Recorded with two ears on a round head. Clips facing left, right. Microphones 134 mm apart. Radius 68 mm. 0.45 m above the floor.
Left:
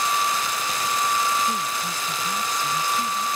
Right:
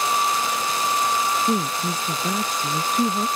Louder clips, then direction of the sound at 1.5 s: Right 4 dB; 55° right (ahead or behind).